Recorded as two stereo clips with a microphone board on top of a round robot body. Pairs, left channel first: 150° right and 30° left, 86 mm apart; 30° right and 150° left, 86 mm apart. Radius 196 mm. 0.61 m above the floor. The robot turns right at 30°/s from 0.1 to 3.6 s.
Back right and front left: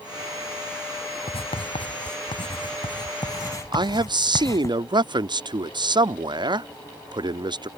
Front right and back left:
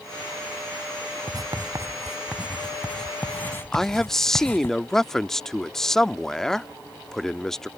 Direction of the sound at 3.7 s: 55° left.